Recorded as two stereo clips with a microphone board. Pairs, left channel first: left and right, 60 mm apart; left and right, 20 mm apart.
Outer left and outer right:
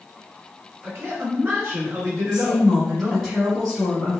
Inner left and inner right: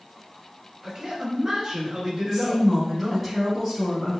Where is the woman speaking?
10° left (ahead or behind), 1.8 m.